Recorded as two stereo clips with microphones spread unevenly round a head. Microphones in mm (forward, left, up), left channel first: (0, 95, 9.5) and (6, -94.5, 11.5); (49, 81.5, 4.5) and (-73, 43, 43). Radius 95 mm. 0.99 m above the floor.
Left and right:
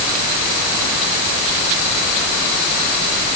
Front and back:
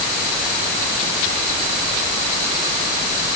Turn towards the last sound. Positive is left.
No sound to turn to.